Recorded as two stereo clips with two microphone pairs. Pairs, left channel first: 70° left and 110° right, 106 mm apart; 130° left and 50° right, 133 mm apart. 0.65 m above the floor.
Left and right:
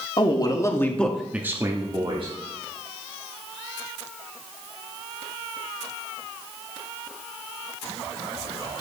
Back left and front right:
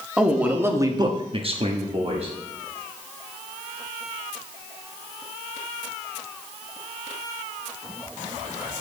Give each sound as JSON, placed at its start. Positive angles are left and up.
{"t": 0.2, "sound": "a man speaking", "azimuth_deg": 35, "distance_m": 1.6}